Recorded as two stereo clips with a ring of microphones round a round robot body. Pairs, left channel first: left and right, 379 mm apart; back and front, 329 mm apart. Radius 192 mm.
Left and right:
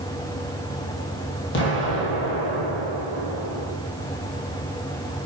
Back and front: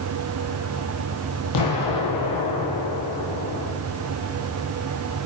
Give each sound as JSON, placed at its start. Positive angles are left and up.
{"t": 1.5, "sound": "an explosion", "azimuth_deg": 155, "distance_m": 2.5}